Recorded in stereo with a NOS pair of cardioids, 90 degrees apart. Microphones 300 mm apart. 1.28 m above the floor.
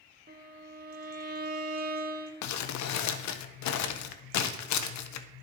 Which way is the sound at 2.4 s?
65° left.